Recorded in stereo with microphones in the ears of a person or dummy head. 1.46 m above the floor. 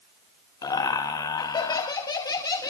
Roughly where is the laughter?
Centre.